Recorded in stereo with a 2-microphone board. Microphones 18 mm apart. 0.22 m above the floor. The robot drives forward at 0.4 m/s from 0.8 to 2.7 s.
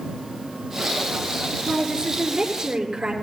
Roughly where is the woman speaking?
Right.